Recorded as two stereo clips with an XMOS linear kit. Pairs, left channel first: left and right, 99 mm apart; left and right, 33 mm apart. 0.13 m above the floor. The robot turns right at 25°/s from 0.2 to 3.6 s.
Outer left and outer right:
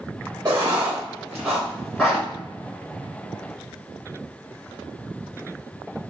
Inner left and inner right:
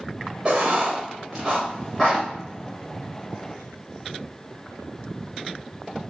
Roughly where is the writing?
Right.